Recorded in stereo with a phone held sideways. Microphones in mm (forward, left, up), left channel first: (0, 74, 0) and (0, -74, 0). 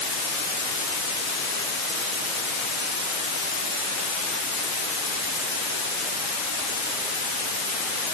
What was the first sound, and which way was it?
Only background noise.